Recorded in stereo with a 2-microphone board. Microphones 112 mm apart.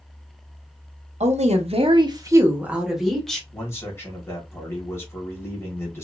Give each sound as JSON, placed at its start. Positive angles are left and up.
{"t": 1.2, "sound": "a woman speaking", "side_deg": -80, "distance_m": 0.8}
{"t": 3.5, "sound": "a man speaking", "side_deg": 25, "distance_m": 1.4}